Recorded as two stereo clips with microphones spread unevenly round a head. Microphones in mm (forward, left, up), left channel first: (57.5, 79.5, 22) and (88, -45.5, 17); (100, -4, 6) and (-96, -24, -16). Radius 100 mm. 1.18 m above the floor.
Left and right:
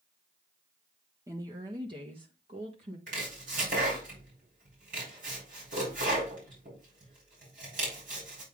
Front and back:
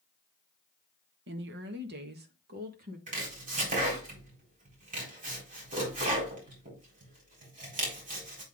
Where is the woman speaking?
150° right, 1.3 m; by 3.0 s 130° right, 1.9 m.